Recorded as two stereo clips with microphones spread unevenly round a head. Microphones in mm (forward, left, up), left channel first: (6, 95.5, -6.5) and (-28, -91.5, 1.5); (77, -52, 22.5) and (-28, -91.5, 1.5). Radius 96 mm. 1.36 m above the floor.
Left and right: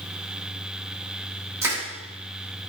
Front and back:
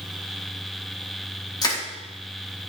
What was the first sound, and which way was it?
Crushing, 25° right.